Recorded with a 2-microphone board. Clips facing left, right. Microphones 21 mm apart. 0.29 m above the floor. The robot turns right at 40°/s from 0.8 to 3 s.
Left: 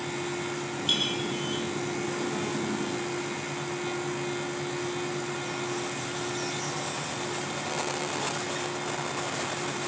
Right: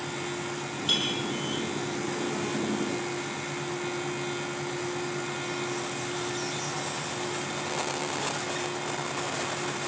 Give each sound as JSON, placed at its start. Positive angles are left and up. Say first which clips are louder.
{"t": 0.9, "sound": "a clink", "louder": "even", "side_deg": 10, "distance_m": 7.5}